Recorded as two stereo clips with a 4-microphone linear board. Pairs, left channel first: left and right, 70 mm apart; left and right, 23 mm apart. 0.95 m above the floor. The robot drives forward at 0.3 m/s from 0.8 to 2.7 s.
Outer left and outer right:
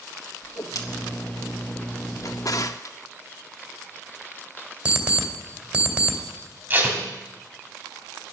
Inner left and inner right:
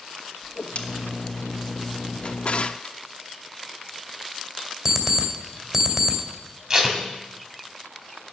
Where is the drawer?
50° left (ahead or behind), 0.6 m.